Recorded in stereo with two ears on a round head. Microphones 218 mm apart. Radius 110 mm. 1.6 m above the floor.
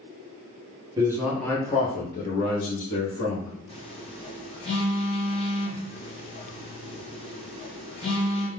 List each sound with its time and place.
1.0 s a man speaking: 15° right (ahead or behind), 0.7 m; by 3.5 s 70° left (ahead or behind), 1.2 m
3.7 s a phone buzzing: 25° left (ahead or behind), 0.7 m